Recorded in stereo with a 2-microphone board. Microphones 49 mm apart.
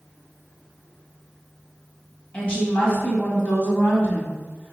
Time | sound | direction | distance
2.3 | a woman speaking | 25° left (ahead or behind) | 1.7 m